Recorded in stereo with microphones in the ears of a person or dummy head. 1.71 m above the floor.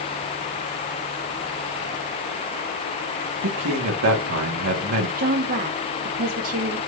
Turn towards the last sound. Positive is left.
turn(degrees=-50)  # may be behind; listen again after turning